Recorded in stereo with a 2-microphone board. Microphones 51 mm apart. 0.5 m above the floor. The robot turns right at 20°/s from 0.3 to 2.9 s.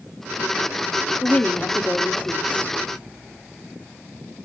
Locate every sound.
1.2 s a woman speaking: 30° left (ahead or behind), 0.9 m